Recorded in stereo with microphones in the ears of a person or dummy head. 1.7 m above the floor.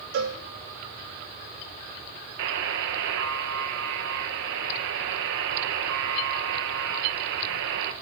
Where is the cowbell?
65° right (ahead or behind), 3.5 m.